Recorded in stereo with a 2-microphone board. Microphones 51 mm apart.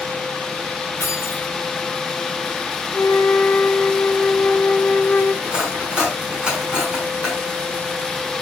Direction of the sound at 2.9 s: 35° left (ahead or behind).